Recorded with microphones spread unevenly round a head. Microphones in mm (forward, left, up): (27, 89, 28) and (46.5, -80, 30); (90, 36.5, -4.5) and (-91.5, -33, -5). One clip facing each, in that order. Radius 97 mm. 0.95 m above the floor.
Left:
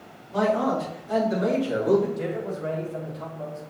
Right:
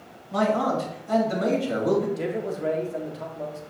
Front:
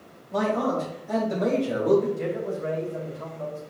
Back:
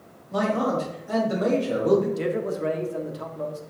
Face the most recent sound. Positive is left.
turn(degrees=-140)